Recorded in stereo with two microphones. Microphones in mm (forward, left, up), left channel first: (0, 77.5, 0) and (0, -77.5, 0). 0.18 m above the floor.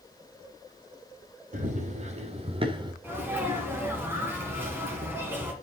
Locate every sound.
1.5 s running footsteps: 50° right (ahead or behind), 2 m; by 2.9 s 30° right (ahead or behind), 1.2 m
3.0 s a sneeze: 15° right (ahead or behind), 2.0 m